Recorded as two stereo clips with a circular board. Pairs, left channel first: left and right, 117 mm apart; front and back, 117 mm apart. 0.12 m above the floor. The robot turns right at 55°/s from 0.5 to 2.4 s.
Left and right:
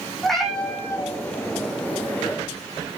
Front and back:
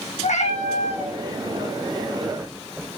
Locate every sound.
0.2 s a cat meowing: straight ahead, 2.5 m; by 1.1 s 35° left, 2.5 m